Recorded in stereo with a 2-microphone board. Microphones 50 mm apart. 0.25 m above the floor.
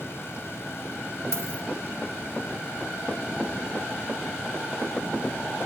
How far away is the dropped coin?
About 0.9 m.